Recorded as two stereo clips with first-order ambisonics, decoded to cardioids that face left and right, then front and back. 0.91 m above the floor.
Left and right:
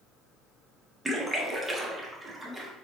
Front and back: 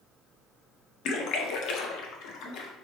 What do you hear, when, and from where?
1.1 s a splash: 10° right, 0.6 m